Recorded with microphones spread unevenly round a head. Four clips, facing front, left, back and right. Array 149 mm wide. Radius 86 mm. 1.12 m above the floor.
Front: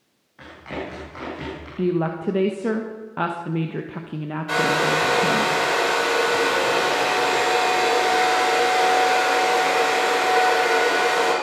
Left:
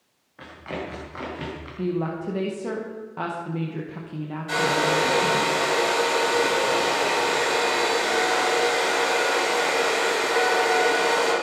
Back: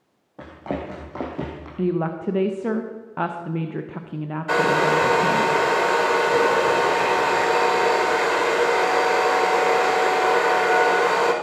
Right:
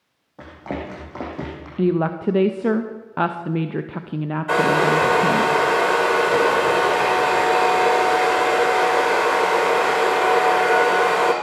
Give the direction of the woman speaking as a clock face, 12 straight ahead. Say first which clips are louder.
Right 7 dB, front 1 dB; 2 o'clock.